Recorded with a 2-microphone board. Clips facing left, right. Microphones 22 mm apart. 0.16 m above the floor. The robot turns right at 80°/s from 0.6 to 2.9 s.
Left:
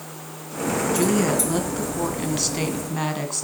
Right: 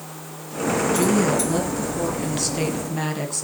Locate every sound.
0.9 s a woman speaking: 10° right (ahead or behind), 1.7 m; by 3.5 s 15° left (ahead or behind), 1.7 m